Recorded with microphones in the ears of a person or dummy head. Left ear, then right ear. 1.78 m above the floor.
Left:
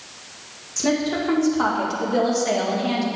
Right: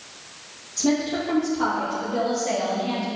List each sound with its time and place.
0.8 s a woman speaking: 55° left (ahead or behind), 2.5 m; by 3.1 s 80° left, 2.5 m